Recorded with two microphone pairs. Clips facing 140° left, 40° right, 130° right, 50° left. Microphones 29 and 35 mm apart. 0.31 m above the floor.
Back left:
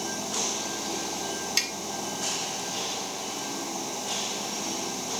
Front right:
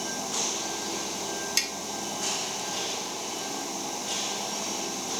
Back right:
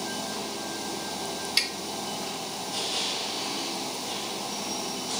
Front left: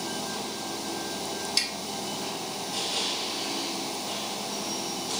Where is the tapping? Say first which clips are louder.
Back left 1 dB, back right 3 dB; 160° right, 0.7 m.